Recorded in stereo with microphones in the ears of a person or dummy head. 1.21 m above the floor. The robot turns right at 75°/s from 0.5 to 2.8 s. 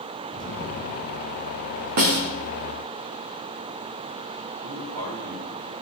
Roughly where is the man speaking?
Right.